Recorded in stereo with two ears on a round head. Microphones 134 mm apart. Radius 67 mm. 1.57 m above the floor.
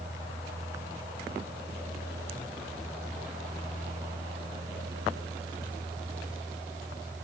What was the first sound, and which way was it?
Only background noise.